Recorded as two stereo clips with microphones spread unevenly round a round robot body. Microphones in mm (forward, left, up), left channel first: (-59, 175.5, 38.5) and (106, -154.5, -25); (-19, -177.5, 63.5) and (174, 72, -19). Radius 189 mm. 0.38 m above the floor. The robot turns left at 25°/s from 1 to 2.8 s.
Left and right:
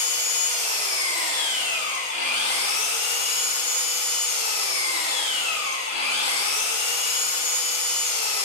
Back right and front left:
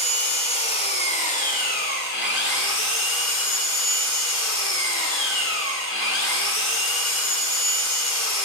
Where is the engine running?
45° right, 1.2 m; by 8.4 s 90° right, 1.2 m.